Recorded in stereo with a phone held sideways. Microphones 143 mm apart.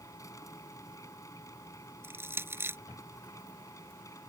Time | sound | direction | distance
0.0 | a machine running | 25° left (ahead or behind) | ?
2.0 | crushing | 15° right (ahead or behind) | ?